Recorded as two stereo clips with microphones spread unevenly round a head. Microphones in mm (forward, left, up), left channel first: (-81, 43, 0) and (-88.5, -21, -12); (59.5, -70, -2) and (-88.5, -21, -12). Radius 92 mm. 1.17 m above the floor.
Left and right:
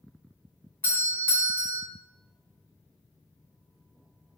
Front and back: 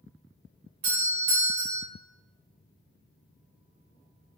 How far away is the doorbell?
About 1.4 m.